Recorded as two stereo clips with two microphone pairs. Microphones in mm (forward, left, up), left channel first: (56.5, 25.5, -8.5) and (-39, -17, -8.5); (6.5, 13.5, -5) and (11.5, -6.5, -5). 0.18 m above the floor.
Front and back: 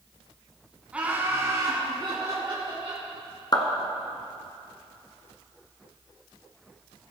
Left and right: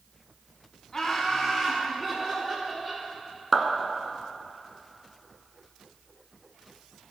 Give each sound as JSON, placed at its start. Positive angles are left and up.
{"t": 0.9, "sound": "laughter", "azimuth_deg": 140, "distance_m": 1.5}
{"t": 3.5, "sound": "a clap", "azimuth_deg": -10, "distance_m": 1.4}